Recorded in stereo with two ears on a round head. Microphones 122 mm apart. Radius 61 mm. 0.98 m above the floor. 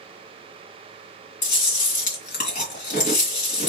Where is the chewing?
65° left (ahead or behind), 3 m.